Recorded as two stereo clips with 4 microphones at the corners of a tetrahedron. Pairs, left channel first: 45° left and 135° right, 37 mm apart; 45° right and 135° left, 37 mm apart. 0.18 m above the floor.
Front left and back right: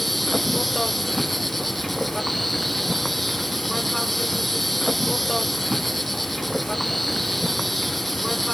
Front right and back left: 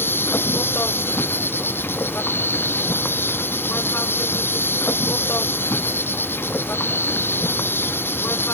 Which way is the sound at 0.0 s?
45° right.